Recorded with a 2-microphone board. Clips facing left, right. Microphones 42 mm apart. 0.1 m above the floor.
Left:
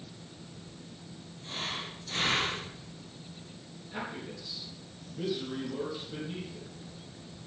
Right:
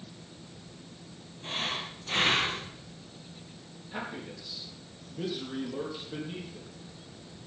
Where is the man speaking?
20° right (ahead or behind), 4 m.